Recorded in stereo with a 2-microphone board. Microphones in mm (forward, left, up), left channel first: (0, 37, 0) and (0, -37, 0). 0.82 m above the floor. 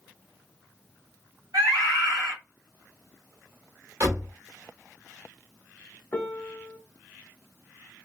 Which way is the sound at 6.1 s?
20° left (ahead or behind).